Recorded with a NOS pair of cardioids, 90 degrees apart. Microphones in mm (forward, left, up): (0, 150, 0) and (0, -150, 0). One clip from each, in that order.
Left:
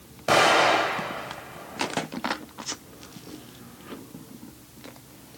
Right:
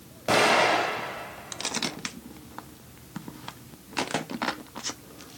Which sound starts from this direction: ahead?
An explosion, at 0.3 s.